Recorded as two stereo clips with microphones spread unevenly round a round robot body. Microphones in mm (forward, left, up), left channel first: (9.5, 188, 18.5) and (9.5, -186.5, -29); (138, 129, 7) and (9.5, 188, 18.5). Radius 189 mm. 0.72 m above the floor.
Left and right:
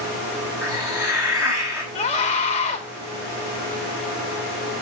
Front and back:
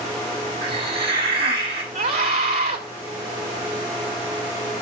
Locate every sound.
0.6 s a hiss: 170° right, 3.5 m
1.9 s a scream: 165° left, 3 m